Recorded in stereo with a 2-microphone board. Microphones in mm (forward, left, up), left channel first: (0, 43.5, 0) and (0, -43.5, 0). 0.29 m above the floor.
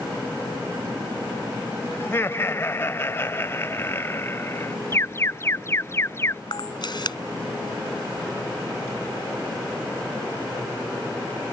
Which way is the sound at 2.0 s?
30° left (ahead or behind).